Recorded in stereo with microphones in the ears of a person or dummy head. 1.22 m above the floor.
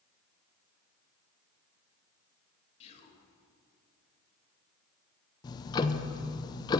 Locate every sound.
2.8 s whispering: 35° left (ahead or behind), 2 m
5.4 s ticking: 20° left (ahead or behind), 0.6 m